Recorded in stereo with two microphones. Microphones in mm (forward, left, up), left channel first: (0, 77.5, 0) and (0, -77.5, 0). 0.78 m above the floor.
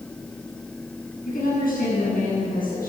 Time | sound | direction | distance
1.2 | a woman speaking | 65° left (ahead or behind) | 6 m